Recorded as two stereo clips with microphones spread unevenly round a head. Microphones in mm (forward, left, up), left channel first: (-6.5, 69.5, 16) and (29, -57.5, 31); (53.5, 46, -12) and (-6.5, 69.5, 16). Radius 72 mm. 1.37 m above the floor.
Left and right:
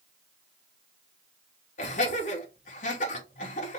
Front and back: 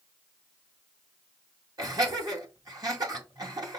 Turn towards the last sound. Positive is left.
turn(degrees=140)